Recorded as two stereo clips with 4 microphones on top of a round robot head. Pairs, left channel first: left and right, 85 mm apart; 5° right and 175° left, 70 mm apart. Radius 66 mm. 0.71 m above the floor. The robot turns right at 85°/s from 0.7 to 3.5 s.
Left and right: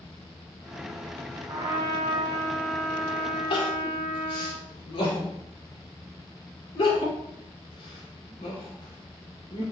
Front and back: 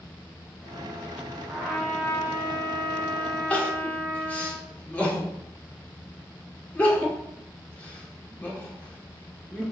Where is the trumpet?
115° right, 1.9 m; by 4.5 s 55° left, 1.9 m.